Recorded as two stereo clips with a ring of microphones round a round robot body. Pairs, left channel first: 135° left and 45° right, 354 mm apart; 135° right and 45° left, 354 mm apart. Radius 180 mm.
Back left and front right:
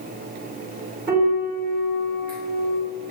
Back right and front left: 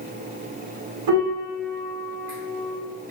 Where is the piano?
15° left, 1.1 m.